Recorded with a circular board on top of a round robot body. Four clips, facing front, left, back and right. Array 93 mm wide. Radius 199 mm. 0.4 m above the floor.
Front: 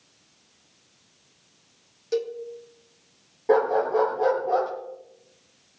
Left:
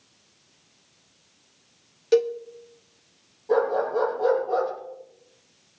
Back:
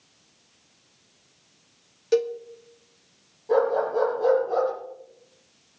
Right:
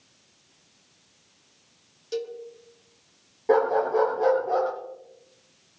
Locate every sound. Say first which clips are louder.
2.1 s a cowbell: left 11 dB, back 5 dB; 120° left, 2 m
3.5 s a dog barking: right 1 dB, front 1 dB; 45° right, 6 m